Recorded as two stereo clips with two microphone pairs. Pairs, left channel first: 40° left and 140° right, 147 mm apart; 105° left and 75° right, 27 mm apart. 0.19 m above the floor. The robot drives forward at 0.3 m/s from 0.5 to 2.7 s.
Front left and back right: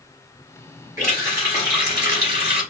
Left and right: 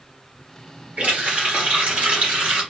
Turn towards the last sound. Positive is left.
turn(degrees=-90)